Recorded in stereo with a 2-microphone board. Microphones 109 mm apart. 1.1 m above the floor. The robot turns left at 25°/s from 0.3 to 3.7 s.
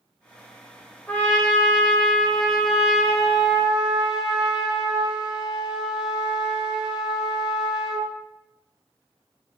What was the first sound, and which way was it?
A trumpet, 15° left (ahead or behind).